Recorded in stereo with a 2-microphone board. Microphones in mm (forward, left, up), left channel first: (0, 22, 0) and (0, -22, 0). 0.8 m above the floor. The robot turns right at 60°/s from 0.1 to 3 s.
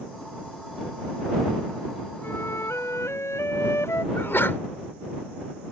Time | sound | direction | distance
2.2 | a flute | 50° left | ?
4.1 | a sneeze | 55° left (ahead or behind) | ?